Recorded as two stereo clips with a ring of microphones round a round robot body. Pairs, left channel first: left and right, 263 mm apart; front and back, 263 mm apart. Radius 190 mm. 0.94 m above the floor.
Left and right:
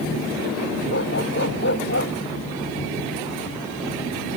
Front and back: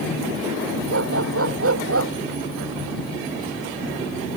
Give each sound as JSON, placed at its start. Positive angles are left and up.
{"t": 0.9, "sound": "a dog barking", "azimuth_deg": 150}